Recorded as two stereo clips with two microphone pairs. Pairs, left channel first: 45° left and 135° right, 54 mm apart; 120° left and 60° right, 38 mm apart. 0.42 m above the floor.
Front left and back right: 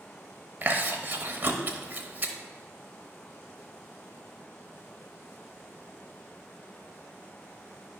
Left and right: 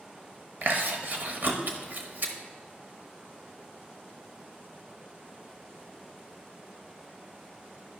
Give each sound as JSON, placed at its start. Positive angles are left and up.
{"t": 0.6, "sound": "chewing", "azimuth_deg": -85, "distance_m": 0.9}